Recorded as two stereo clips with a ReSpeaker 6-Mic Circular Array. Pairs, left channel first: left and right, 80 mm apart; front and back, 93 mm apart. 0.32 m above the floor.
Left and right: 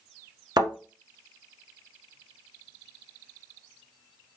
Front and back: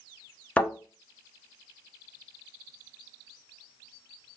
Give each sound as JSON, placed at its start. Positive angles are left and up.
{"t": 0.6, "sound": "a thud", "azimuth_deg": -75, "distance_m": 1.1}